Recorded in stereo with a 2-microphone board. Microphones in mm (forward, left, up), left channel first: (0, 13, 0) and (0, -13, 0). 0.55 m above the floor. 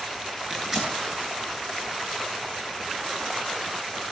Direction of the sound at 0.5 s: Centre (ahead or behind).